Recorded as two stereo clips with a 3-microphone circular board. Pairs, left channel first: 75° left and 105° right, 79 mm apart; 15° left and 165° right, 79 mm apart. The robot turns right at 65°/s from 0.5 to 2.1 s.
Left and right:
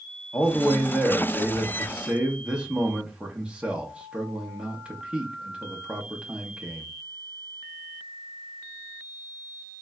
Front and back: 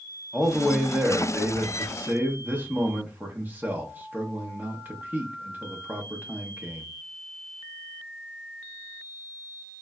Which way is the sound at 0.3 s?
95° left.